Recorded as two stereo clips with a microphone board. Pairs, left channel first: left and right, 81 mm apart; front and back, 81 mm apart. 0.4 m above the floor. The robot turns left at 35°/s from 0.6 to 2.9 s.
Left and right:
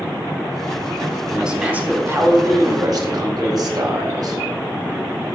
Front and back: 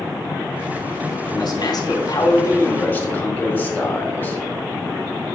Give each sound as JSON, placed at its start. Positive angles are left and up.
{"t": 1.3, "sound": "a man speaking", "azimuth_deg": -5, "distance_m": 1.8}